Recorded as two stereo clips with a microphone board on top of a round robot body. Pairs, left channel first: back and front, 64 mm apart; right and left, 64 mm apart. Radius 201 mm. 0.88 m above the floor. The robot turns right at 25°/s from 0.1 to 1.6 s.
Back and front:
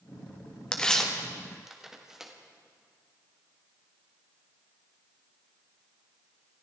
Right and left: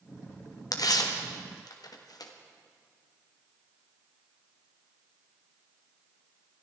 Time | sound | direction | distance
0.7 | tearing paper | 105° right | 1.7 m